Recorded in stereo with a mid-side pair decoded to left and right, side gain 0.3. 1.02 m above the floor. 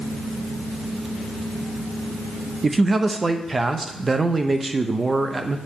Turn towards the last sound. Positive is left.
turn(degrees=-35)